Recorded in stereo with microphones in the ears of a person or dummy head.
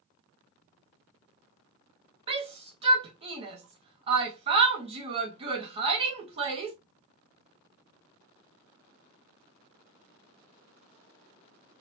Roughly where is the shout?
Right.